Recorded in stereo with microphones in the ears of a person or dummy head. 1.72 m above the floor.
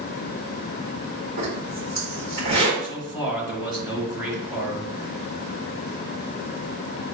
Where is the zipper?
45° right (ahead or behind), 1.7 m.